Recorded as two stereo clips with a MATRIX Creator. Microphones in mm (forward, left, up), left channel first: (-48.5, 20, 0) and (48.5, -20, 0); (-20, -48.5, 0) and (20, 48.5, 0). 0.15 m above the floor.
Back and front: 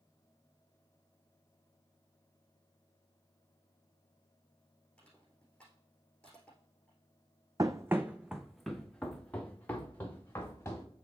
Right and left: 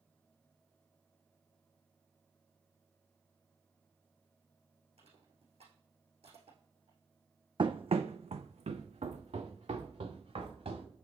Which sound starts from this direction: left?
Crushing, at 5.0 s.